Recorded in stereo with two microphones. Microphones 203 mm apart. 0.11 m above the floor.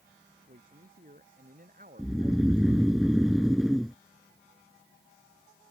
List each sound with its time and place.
0.5 s a man speaking: 45° right (ahead or behind)
2.0 s snoring: centre (ahead or behind)